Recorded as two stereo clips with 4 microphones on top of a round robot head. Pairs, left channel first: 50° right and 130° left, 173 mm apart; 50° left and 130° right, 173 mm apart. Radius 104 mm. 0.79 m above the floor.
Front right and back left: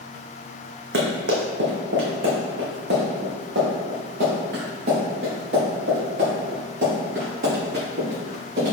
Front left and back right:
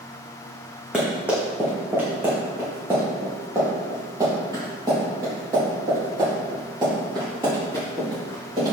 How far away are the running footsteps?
About 2.5 m.